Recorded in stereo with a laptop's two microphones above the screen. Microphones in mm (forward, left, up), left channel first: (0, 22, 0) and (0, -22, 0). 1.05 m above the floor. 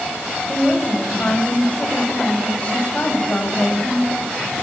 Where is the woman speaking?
30° left (ahead or behind), 5.5 m.